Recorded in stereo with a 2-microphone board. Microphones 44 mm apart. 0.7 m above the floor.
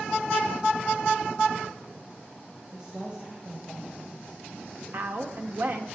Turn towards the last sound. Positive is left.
turn(degrees=-65)  # may be behind; listen again after turning